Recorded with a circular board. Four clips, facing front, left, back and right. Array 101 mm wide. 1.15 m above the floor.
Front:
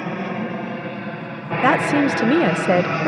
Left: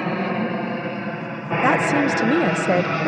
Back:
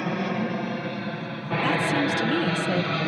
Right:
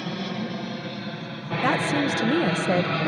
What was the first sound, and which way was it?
An aircraft, 80° left.